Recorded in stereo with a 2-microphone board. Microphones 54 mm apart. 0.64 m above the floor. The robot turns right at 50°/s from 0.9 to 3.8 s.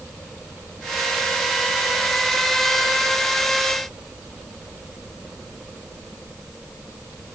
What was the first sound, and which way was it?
Only background noise.